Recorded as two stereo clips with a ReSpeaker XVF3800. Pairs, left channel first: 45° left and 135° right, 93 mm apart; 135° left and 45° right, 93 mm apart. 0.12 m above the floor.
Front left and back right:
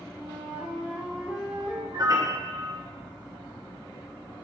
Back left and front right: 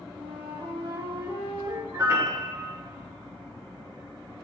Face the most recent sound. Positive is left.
turn(degrees=-95)